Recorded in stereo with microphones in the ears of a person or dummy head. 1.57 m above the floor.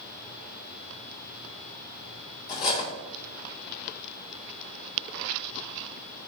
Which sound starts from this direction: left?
Cutlery clinking, at 2.5 s.